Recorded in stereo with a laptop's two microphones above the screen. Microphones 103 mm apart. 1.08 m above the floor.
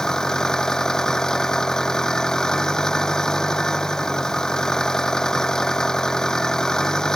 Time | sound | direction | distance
0.0 | an engine running | 5° left (ahead or behind) | ?